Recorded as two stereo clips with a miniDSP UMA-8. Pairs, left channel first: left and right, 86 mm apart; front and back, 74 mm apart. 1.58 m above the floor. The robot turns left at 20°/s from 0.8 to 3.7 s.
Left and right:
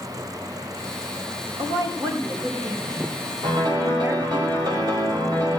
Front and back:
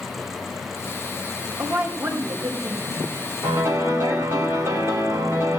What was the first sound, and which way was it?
A woman speaking, 120° right.